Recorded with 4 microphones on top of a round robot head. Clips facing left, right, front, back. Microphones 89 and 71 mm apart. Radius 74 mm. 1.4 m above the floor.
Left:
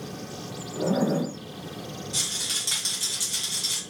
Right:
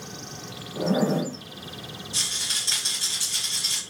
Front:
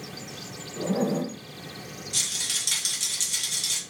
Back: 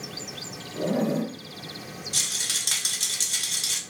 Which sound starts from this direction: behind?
A zipper, at 0.8 s.